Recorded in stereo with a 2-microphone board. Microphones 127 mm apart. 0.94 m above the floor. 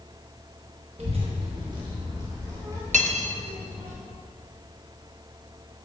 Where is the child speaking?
50° right (ahead or behind), 1.1 m; by 3.9 s 20° right (ahead or behind), 3.5 m.